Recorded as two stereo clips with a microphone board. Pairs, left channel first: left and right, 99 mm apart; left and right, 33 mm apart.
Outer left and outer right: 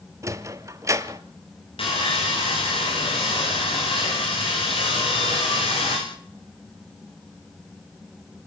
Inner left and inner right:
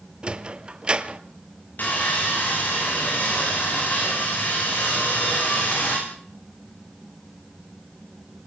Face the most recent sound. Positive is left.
turn(degrees=65)  # may be behind; listen again after turning